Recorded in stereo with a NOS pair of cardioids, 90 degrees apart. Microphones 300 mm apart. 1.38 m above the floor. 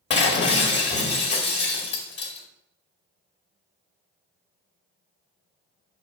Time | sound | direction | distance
0.1 | breaking glass | 35° left | 2 m